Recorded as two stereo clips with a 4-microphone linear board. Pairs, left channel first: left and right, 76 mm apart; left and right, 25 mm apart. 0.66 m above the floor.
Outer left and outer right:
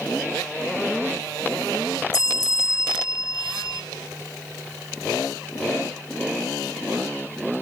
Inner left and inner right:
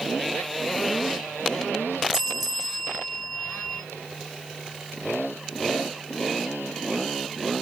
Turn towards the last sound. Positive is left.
turn(degrees=-10)  # may be behind; listen again after turning